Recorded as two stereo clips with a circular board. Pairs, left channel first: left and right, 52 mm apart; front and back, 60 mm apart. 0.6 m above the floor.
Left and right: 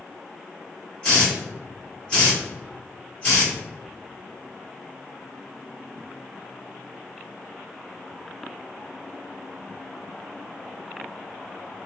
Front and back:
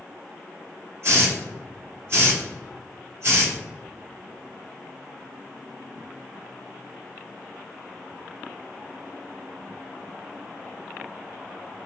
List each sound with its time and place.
1.0 s a hiss: 155° left, 1.8 m